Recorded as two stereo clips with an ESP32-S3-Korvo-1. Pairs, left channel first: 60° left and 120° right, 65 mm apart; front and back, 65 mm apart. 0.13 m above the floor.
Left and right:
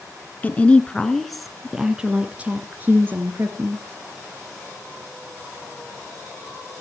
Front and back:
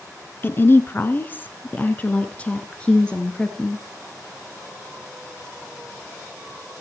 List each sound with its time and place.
0.4 s a woman speaking: 15° left, 1.4 m; by 3.9 s 80° right, 2 m